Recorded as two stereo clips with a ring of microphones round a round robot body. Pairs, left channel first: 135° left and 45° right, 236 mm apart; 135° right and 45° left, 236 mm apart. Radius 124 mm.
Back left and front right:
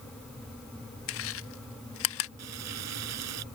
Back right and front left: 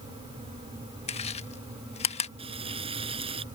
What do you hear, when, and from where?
1.1 s chewing: 160° left
2.4 s frying: 25° right